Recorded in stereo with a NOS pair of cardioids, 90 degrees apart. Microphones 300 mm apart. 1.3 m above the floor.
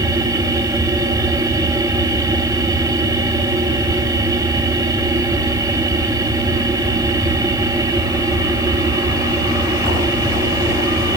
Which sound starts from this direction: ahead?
A machine running, at 0.0 s.